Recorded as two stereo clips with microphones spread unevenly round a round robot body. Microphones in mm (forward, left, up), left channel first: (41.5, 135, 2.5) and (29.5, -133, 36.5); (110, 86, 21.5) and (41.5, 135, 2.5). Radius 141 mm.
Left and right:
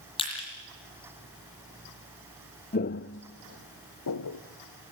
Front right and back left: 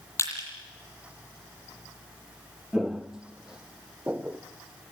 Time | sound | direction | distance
0.2 | crushing | 15° left | 8.5 m
2.7 | footsteps | 40° left | 0.6 m